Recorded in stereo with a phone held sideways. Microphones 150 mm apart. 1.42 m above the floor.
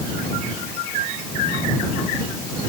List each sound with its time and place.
Only background noise.